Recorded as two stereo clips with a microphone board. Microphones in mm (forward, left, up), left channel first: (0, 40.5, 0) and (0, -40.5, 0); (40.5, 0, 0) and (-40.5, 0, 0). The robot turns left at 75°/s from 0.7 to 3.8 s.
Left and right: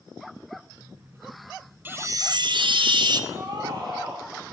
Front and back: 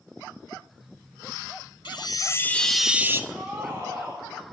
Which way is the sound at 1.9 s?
25° right.